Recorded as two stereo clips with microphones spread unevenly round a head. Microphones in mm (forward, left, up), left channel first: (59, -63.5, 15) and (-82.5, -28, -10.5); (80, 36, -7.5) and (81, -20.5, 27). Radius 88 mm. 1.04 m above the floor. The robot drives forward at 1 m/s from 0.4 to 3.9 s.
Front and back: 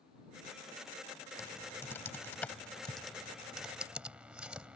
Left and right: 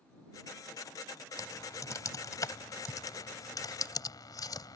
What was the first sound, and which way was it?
Typing on a keyboard, 60° left.